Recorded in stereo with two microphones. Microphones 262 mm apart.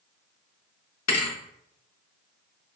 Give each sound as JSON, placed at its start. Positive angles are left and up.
{"t": 1.1, "sound": "a thud", "side_deg": 75, "distance_m": 0.5}